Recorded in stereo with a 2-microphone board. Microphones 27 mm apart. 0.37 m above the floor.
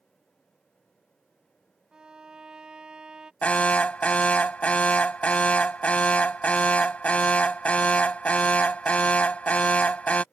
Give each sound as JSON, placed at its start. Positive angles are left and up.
{"t": 1.9, "sound": "a violin", "side_deg": -30}
{"t": 3.4, "sound": "an alarm", "side_deg": 55}